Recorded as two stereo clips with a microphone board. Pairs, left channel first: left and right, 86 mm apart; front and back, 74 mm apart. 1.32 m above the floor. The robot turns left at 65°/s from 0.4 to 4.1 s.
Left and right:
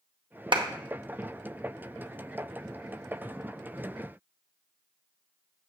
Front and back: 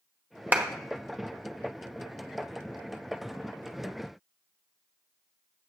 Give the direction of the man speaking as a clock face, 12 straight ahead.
I don't hear a man speaking.